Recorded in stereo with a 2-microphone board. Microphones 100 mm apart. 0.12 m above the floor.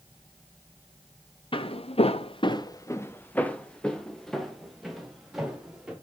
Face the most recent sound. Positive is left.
turn(degrees=-5)  # may be behind; listen again after turning